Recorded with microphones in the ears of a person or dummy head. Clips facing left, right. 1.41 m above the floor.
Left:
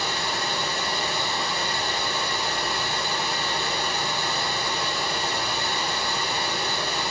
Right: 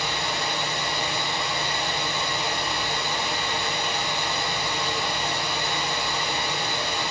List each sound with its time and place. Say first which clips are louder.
0.0 s running water: even; 15° right (ahead or behind), 3.5 m